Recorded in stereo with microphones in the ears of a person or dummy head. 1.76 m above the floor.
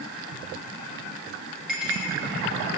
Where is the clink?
Centre (ahead or behind), 1.2 m.